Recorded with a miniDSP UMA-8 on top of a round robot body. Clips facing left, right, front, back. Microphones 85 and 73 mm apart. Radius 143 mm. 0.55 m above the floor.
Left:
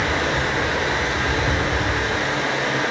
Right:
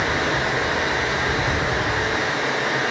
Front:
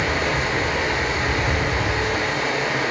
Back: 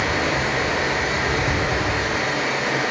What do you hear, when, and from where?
0.0 s running water: 165° right, 1.0 m